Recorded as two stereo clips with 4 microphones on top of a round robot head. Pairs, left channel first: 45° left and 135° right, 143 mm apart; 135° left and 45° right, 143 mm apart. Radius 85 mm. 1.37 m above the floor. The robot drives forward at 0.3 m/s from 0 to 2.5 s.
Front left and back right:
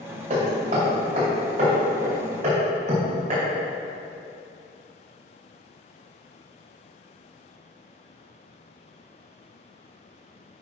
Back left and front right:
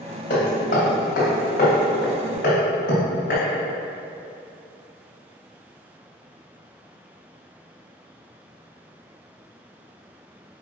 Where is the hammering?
175° left, 2.5 m.